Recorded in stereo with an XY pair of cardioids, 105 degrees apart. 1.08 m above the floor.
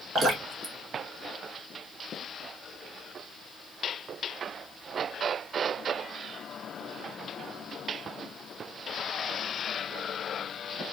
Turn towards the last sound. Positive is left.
turn(degrees=-50)